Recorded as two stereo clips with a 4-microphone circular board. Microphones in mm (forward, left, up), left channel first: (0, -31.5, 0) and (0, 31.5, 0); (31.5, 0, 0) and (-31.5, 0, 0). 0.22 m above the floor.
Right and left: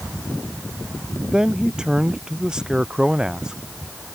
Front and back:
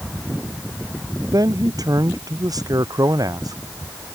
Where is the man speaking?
170° left.